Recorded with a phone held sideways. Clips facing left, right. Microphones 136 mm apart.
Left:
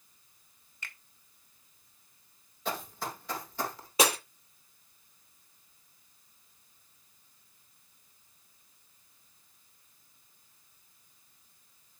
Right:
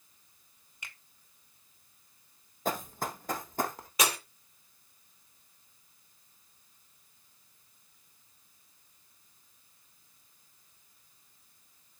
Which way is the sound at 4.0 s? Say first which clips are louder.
Left 4 dB; 30° left (ahead or behind).